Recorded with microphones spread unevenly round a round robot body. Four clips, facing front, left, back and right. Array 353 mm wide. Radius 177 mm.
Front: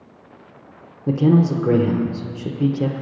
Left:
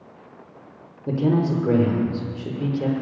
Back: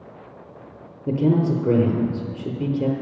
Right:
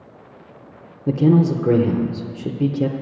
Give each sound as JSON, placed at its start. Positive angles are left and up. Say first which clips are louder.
{"t": 1.1, "sound": "a man speaking", "louder": "right 5 dB, front 3 dB", "azimuth_deg": -90, "distance_m": 0.9}